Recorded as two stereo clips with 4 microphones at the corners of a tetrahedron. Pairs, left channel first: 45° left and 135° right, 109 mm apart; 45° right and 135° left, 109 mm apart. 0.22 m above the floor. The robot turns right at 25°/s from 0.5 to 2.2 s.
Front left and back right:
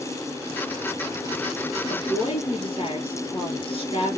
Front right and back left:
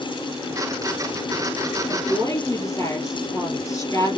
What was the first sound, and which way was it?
A woman speaking, 10° left.